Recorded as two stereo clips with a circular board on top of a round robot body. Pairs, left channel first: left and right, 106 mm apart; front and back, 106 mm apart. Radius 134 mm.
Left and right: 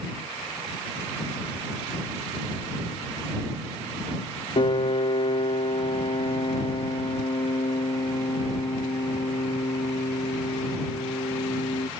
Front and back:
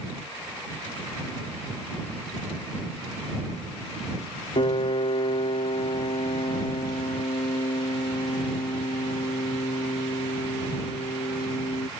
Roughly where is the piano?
Ahead left.